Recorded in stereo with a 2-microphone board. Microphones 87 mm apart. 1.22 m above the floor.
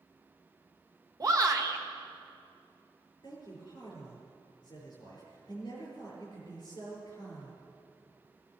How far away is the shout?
About 1.4 m.